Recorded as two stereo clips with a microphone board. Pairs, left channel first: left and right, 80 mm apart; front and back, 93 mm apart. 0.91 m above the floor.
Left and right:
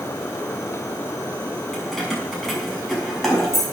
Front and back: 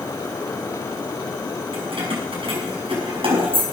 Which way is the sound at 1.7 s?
Straight behind.